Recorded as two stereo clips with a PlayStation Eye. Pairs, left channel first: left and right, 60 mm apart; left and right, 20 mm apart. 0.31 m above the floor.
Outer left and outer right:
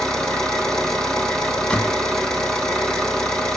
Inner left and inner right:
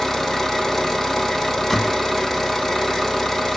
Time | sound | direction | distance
0.0 | an engine running | 15° left (ahead or behind) | 2.5 m
1.7 | a door slam | 20° left (ahead or behind) | 1.5 m